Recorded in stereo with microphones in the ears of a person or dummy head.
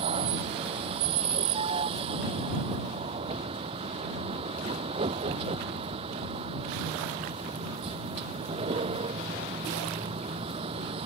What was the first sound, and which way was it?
A vehicle, 35° right (ahead or behind).